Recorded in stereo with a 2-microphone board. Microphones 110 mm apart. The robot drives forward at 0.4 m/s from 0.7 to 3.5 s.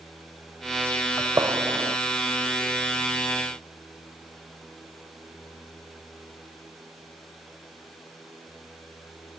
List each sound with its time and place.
1.2 s a gunshot: 25° right (ahead or behind); by 2.0 s 30° right (ahead or behind)